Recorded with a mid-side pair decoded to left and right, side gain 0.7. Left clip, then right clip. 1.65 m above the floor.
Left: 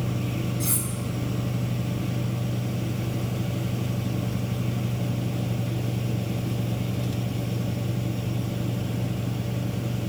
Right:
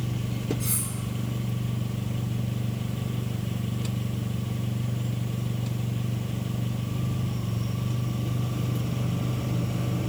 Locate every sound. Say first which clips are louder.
0.6 s cutlery clinking: left 3 dB; 25° left, 2.5 m